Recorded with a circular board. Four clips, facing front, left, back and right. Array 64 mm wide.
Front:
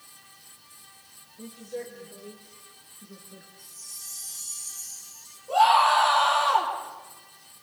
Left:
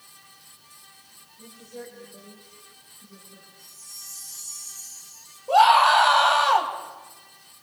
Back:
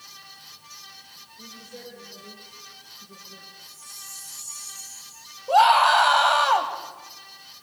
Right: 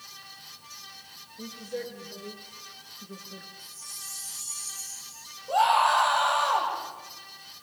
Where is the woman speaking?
75° right, 6.5 m; by 3.5 s 90° right, 5.5 m.